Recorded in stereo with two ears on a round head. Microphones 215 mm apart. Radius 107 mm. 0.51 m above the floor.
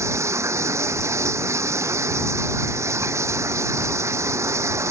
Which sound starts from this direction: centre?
Running water, at 0.0 s.